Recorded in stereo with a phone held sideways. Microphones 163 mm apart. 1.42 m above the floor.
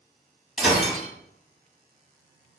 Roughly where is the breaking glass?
Centre.